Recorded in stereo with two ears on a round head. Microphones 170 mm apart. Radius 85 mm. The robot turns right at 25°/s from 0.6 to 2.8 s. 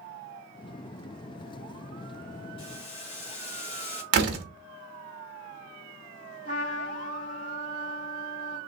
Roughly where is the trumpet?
Left.